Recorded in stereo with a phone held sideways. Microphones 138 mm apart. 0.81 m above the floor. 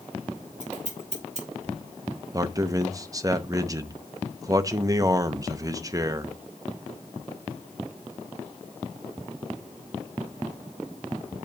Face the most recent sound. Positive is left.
turn(degrees=-25)  # may be behind; listen again after turning